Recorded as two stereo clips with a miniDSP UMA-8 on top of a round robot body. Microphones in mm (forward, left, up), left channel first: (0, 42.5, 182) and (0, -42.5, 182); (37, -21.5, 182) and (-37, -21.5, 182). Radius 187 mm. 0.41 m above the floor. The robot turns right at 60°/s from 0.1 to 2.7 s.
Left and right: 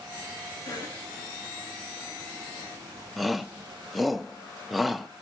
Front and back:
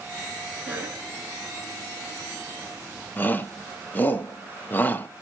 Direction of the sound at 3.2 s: 5° right.